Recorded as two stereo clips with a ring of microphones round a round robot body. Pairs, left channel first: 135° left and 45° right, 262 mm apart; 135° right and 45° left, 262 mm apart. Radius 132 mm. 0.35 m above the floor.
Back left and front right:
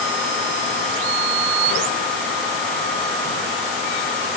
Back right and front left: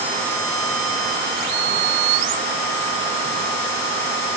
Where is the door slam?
I don't hear a door slam.